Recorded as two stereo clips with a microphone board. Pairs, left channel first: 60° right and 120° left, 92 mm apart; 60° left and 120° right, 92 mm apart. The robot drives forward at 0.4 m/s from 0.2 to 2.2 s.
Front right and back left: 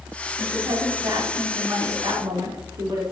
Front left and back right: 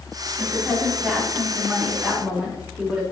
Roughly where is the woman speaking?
Behind left.